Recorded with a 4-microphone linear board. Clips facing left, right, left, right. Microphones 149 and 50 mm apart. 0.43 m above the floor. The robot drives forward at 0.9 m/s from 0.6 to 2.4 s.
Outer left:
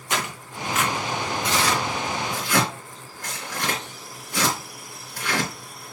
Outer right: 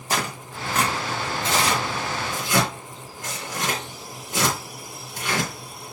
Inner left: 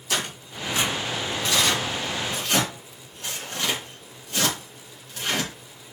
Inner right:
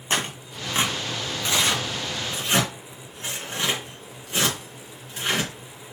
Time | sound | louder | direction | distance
0.1 | tearing paper | outer right 2 dB, inner right 2 dB | 40° right (ahead or behind) | 2 m